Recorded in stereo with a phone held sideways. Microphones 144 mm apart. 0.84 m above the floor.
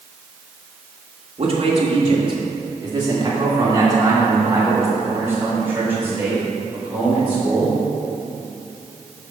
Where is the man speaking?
45° right (ahead or behind), 1.4 m; by 7.8 s 10° right (ahead or behind), 4 m.